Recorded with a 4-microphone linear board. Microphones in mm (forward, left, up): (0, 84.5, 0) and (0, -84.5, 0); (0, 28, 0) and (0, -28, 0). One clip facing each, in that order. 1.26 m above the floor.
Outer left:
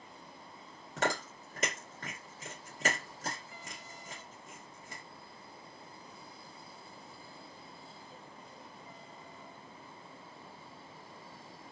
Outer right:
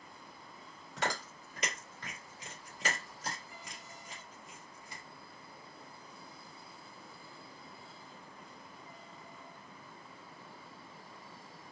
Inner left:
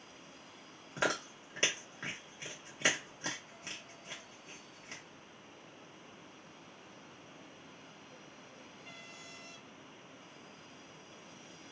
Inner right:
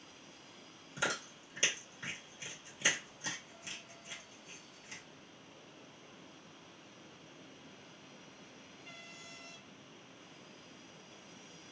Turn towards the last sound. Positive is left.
turn(degrees=50)  # may be behind; listen again after turning